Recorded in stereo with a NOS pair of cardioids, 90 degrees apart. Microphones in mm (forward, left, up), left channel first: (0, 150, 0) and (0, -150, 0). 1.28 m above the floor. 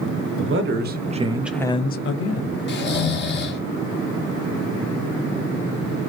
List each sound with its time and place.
0.4 s a man speaking: 45° right, 1.1 m; by 2.6 s 65° left, 0.8 m
2.7 s snoring: 35° left, 1.0 m